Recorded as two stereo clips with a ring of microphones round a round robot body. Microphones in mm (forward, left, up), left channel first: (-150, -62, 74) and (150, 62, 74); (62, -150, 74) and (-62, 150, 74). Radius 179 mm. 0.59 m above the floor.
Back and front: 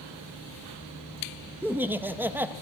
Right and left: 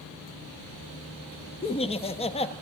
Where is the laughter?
50° right, 0.7 m.